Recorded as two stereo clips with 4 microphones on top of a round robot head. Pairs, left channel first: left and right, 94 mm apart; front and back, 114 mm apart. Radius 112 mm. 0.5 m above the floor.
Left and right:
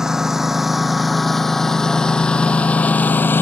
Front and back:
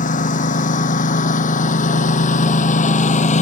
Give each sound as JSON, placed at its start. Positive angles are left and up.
{"t": 0.0, "sound": "a lawn mower", "azimuth_deg": -5}